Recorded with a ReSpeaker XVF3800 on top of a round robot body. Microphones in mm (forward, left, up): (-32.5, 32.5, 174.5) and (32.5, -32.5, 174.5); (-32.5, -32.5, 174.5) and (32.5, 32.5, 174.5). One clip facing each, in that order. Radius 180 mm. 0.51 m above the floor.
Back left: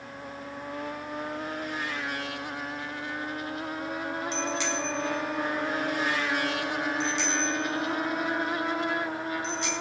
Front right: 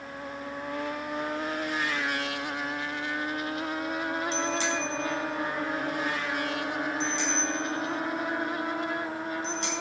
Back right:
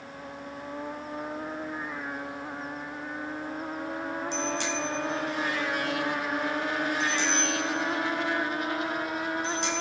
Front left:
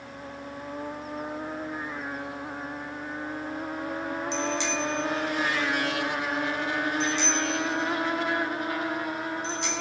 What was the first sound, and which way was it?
A bicycle bell, 95° right.